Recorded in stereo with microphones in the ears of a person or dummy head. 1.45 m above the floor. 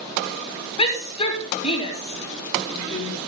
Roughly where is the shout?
Left.